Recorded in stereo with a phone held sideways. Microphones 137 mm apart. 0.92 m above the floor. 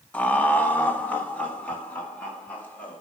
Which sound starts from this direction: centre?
Laughter, at 0.1 s.